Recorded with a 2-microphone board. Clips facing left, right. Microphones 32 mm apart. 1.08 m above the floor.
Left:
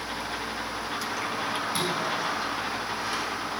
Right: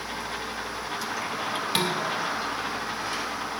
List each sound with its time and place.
1.8 s dishes clattering: 80° right, 2 m